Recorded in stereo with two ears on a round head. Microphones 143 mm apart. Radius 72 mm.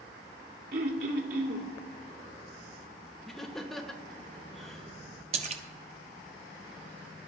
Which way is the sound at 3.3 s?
Centre (ahead or behind).